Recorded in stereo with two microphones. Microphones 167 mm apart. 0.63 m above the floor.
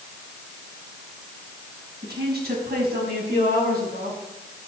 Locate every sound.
2.0 s a woman speaking: 80° right, 5 m; by 4.2 s 65° right (ahead or behind), 6.5 m